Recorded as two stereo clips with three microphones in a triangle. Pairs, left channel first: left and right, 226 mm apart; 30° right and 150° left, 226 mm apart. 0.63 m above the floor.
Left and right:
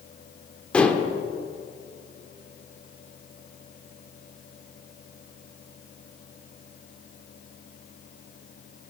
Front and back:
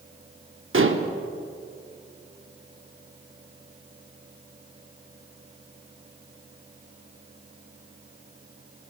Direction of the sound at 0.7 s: 175° left.